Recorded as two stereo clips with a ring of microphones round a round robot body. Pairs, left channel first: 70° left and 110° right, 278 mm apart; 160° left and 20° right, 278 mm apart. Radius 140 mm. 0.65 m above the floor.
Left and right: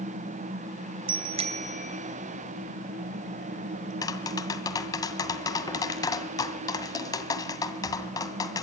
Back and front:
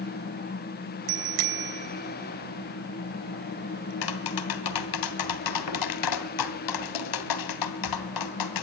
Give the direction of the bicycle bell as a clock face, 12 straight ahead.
1 o'clock.